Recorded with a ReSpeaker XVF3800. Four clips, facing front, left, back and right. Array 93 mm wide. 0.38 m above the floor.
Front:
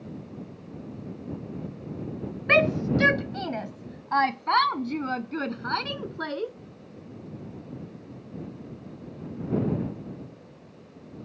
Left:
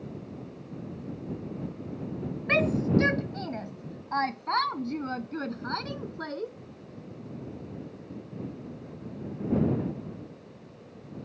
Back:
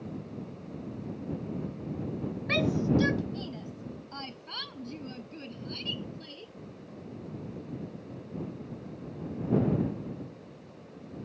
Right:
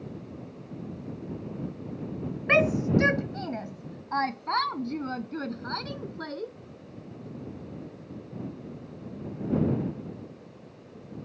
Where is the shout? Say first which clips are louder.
Right 2 dB, front 5 dB; 25° right; by 6.5 s 10° left.